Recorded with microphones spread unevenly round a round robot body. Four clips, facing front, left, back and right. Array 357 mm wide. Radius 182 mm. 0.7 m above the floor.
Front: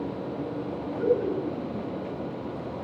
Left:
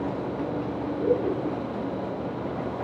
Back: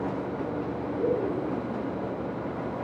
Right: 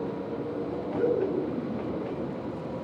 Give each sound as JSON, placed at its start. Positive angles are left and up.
{"t": 0.9, "sound": "laughter", "azimuth_deg": -110, "distance_m": 9.0}